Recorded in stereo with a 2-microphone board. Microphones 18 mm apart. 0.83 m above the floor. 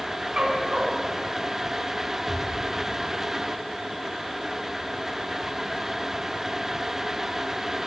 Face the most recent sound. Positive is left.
turn(degrees=-10)  # may be behind; listen again after turning